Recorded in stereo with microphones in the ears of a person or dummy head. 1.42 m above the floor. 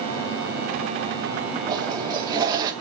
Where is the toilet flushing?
25° right (ahead or behind), 1.1 m.